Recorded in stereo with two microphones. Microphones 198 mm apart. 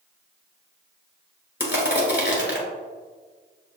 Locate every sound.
1.6 s crushing: 60° left (ahead or behind), 1.3 m